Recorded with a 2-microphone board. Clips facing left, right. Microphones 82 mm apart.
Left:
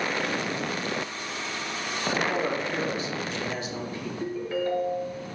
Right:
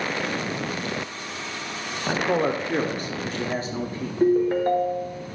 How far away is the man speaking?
About 0.9 m.